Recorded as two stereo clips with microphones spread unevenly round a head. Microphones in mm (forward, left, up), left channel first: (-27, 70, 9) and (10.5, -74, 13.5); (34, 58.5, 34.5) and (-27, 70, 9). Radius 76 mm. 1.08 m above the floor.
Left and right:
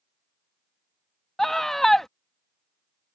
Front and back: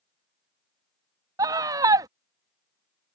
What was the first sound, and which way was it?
A scream, 170° right.